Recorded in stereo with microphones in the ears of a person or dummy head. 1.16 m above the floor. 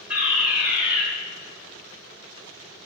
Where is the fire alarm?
10° right (ahead or behind), 2 m.